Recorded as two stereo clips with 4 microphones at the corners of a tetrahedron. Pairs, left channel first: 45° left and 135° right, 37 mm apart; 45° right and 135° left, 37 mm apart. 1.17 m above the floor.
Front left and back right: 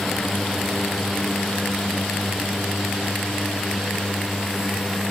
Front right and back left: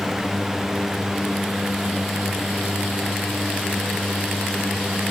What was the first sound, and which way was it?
Only background noise.